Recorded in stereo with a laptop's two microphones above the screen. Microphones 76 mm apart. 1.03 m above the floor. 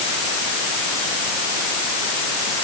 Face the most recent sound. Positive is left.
No sound to turn to.